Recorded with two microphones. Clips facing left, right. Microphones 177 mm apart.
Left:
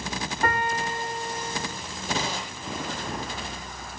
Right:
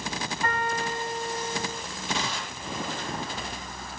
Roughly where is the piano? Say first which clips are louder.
Left 3 dB; left.